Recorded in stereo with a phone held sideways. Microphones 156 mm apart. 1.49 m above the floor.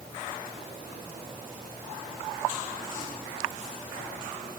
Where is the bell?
I don't hear a bell.